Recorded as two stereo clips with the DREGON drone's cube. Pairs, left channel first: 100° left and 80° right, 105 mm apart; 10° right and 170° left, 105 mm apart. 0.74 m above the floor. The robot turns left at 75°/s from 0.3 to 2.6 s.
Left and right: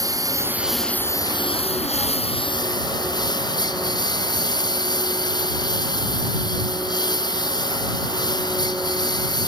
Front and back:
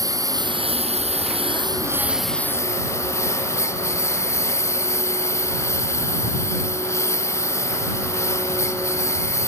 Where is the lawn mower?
135° right; by 9.5 s 55° left.